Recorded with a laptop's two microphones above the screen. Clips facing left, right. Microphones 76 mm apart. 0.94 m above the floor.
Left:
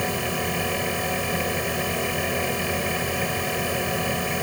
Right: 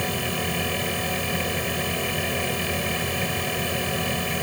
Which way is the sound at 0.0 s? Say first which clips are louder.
Left 1 dB; 10° left (ahead or behind).